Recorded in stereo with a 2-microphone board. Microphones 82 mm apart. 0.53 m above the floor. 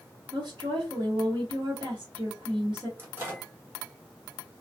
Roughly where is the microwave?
Right.